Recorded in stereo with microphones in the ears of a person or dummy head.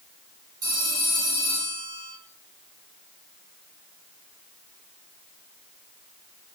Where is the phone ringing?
20° right (ahead or behind), 5 m.